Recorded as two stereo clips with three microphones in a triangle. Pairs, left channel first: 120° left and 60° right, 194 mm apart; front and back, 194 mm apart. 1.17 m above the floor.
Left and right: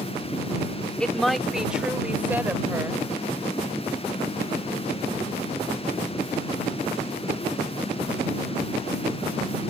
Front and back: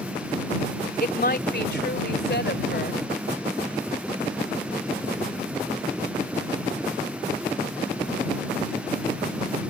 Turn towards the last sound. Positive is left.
turn(degrees=15)